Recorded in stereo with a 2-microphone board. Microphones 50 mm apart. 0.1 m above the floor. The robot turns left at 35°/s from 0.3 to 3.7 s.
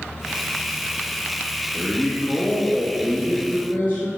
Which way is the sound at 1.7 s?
150° left.